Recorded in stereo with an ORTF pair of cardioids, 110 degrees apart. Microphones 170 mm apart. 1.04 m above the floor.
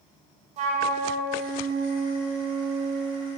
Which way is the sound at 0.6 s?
45° right.